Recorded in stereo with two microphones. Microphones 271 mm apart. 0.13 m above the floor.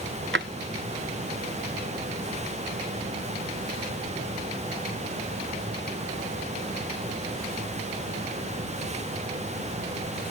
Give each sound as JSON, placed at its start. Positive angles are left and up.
{"t": 0.3, "sound": "a drawer", "side_deg": -45}